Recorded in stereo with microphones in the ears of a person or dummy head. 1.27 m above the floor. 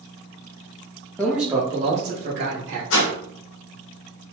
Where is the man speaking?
10° left (ahead or behind), 0.7 m; by 2.8 s 55° right (ahead or behind), 1.1 m.